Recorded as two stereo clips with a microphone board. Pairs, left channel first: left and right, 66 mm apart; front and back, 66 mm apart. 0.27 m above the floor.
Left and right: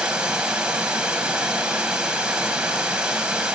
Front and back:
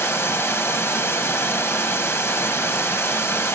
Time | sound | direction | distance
0.0 | running water | 25° right | 1.7 m